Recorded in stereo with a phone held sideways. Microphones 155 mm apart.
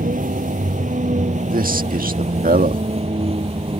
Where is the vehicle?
60° right (ahead or behind); by 3.8 s 35° right (ahead or behind).